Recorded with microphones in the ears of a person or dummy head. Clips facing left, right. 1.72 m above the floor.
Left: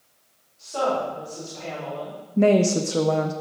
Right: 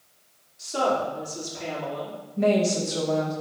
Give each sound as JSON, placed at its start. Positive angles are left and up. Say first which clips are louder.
{"t": 0.6, "sound": "a woman speaking", "louder": "even", "side_deg": -20, "distance_m": 4.5}
{"t": 2.4, "sound": "a woman speaking", "louder": "left 4 dB", "side_deg": 55, "distance_m": 0.7}